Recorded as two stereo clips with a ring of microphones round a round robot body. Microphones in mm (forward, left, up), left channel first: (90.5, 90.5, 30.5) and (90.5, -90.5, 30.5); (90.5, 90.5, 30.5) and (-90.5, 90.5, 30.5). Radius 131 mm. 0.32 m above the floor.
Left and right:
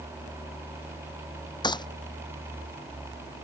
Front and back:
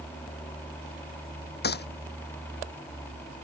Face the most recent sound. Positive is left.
turn(degrees=25)